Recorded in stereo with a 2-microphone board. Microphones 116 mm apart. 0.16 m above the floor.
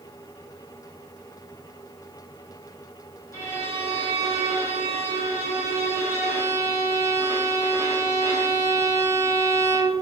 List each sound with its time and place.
3.3 s a violin: 25° left (ahead or behind), 1.1 m